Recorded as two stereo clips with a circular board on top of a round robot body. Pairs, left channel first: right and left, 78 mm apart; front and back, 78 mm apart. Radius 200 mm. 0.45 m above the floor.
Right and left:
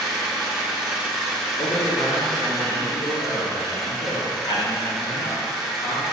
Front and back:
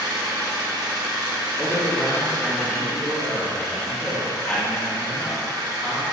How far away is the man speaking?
About 1.9 m.